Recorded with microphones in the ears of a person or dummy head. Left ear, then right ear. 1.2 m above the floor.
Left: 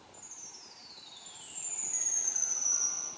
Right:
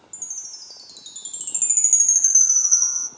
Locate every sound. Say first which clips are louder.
0.1 s a chime: right 15 dB; 70° right (ahead or behind), 0.8 m